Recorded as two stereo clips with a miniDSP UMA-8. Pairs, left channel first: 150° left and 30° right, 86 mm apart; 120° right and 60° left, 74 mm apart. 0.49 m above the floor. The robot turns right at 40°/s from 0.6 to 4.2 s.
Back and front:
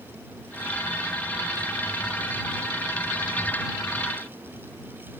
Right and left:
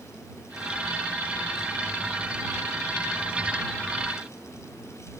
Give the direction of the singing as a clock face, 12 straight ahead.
I don't hear singing.